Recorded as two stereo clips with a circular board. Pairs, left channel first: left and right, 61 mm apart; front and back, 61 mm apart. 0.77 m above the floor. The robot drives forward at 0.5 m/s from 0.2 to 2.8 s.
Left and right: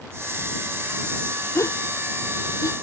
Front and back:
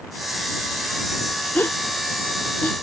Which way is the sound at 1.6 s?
55° left.